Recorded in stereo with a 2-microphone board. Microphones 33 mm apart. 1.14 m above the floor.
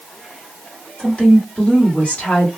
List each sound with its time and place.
1.0 s a woman speaking: 40° left (ahead or behind), 1.3 m